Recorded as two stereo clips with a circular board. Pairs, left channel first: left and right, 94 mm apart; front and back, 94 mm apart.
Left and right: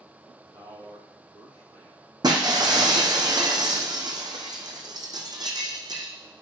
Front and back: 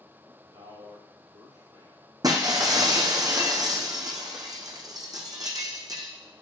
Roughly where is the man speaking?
Behind right.